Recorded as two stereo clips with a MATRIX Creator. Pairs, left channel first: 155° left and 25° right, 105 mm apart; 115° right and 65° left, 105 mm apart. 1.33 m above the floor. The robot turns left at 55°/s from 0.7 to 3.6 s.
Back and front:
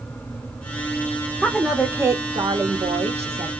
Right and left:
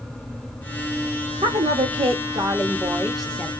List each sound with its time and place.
1.4 s a woman speaking: 75° left, 0.8 m; by 3.5 s 40° right, 0.8 m